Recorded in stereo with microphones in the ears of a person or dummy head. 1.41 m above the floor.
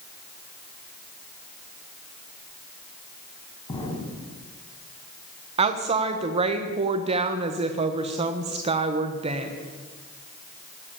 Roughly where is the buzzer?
No buzzer in this recording.